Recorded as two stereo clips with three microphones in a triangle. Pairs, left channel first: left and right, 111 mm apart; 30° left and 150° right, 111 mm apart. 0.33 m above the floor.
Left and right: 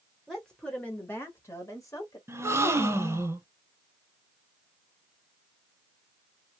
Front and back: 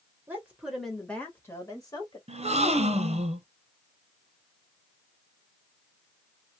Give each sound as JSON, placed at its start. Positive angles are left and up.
{"t": 0.3, "sound": "a woman speaking", "azimuth_deg": 180, "distance_m": 0.9}
{"t": 2.3, "sound": "a gasp", "azimuth_deg": -160, "distance_m": 0.6}